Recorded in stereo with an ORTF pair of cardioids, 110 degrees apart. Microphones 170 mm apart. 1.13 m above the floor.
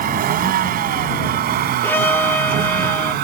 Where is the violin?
10° left.